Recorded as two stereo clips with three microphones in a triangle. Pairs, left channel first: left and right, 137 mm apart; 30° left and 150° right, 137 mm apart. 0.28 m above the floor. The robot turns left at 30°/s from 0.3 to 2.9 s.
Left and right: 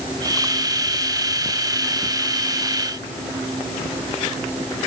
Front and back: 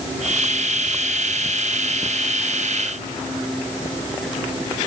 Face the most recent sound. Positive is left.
No sound to turn to.